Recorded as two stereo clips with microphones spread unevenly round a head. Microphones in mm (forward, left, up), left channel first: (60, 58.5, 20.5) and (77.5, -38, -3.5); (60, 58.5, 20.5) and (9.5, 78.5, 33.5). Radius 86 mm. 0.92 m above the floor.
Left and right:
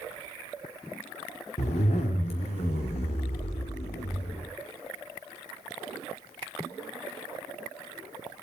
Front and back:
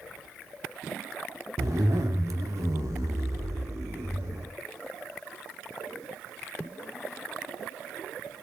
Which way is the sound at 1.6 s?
145° left.